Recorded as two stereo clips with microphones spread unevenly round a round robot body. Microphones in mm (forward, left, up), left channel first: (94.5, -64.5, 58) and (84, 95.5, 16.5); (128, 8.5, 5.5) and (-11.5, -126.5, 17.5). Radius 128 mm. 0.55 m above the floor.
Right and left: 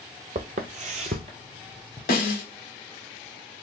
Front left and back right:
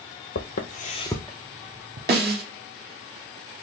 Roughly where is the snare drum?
Behind right.